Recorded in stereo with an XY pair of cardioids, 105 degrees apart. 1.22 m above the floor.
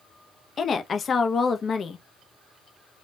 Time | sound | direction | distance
0.6 | a woman speaking | 45° left | 0.5 m